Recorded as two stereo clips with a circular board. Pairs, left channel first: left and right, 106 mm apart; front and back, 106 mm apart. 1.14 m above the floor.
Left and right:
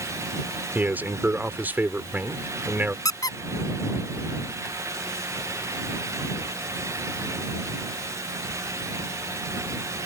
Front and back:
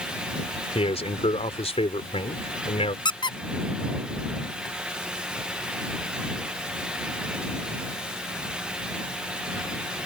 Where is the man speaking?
15° right.